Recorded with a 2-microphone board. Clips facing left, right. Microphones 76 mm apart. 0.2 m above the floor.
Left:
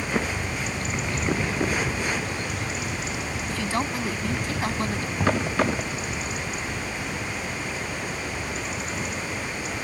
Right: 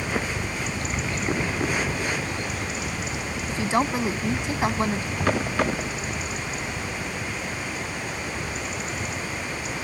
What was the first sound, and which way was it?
A helicopter, 20° right (ahead or behind).